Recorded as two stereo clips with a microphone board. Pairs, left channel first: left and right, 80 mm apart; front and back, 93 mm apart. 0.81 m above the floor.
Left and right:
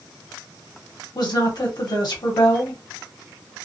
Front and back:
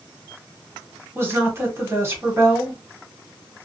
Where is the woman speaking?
115° left, 2.0 m.